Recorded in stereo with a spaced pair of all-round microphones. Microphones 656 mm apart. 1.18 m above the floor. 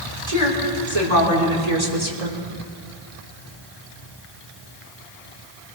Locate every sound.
0.3 s a woman speaking: 60° right (ahead or behind), 4.5 m; by 2.4 s 80° right, 3 m